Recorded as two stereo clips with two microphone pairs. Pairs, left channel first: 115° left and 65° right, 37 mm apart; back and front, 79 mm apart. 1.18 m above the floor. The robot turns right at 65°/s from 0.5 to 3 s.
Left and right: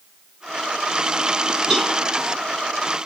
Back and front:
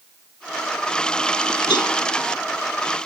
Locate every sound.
1.7 s a cowbell: 160° right, 6.5 m; by 1.9 s 145° right, 6.5 m